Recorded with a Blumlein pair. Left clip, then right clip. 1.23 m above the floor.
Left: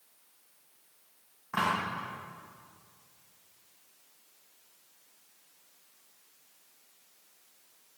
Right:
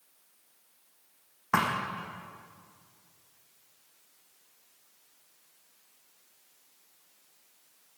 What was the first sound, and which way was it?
A thud, 55° right.